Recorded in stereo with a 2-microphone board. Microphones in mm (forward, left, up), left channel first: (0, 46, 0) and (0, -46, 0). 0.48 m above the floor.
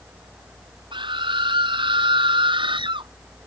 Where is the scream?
60° right (ahead or behind); by 3.1 s 65° right (ahead or behind).